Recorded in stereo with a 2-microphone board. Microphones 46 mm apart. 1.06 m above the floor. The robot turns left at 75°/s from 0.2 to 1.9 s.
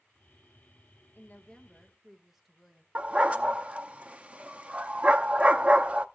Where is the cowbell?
I don't hear a cowbell.